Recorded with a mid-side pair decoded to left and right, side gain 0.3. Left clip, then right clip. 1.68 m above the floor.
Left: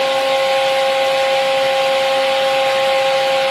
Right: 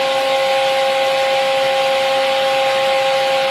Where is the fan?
5° left, 0.8 m.